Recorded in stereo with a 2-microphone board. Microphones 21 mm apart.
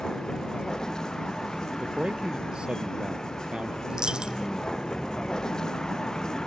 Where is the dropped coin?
40° right (ahead or behind).